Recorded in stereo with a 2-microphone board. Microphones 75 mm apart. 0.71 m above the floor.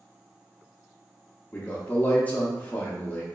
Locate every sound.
1.5 s a man speaking: 20° left (ahead or behind), 0.6 m